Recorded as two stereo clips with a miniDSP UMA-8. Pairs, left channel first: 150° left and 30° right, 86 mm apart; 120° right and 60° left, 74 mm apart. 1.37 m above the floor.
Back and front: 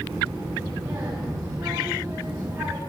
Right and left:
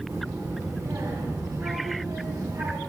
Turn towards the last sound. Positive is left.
turn(degrees=10)